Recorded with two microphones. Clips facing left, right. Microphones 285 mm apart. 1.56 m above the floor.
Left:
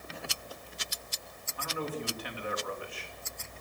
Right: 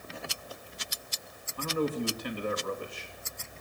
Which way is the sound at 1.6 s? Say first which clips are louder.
Right 7 dB; 45° right (ahead or behind).